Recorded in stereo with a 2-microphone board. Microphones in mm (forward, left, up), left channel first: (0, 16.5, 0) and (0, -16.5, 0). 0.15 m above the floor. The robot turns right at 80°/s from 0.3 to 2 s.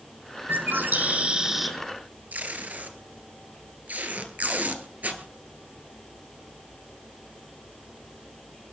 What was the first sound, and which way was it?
A bird, 95° right.